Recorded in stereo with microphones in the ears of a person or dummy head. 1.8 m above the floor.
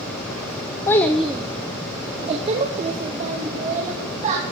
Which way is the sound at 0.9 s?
15° left (ahead or behind).